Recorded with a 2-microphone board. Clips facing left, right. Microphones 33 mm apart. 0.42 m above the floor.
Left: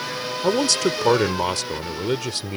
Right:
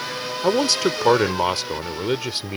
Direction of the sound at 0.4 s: 15° right (ahead or behind).